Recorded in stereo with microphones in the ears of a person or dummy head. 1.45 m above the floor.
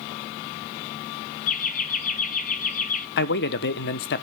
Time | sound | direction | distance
1.5 | laughter | 45° left (ahead or behind) | 1.1 m
3.2 | a man speaking | 55° left (ahead or behind) | 0.6 m